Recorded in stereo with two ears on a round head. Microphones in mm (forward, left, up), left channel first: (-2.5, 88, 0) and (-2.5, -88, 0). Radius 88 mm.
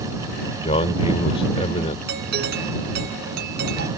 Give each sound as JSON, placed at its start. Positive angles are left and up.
{"t": 0.6, "sound": "a man speaking", "side_deg": 30}
{"t": 2.1, "sound": "a doorbell", "side_deg": -55}